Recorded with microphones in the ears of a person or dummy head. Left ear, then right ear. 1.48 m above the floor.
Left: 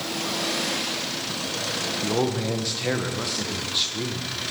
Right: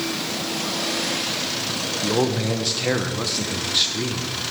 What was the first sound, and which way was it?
A man speaking, 5° right (ahead or behind).